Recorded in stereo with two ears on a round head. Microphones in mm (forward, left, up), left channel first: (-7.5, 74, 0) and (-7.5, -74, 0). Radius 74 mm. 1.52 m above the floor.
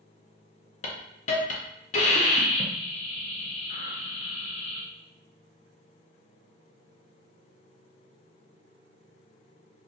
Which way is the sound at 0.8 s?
45° left (ahead or behind).